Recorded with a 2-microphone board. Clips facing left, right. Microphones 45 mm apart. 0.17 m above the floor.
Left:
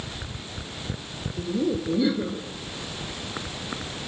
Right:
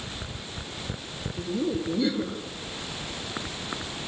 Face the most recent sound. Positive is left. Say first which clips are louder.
# left 2 dB
turn(degrees=5)  # may be behind; listen again after turning